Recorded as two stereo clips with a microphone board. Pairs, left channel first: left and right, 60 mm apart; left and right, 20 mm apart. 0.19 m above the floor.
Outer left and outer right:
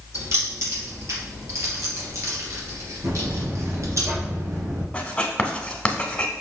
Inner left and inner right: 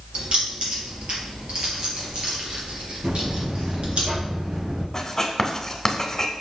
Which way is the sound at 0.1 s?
50° right (ahead or behind).